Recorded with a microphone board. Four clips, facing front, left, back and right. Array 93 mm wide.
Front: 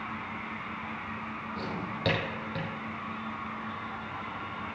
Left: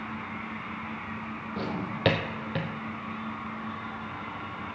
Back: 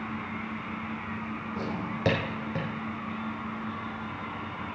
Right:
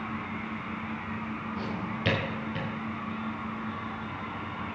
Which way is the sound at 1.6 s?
110° left.